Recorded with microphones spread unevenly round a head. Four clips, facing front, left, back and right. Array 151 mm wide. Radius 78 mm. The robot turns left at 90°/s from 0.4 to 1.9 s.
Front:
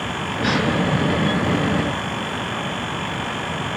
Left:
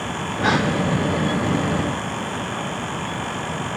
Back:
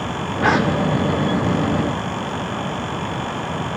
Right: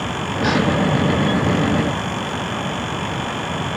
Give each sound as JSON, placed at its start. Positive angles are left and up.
{"t": 0.4, "sound": "a gasp", "azimuth_deg": 170, "distance_m": 2.0}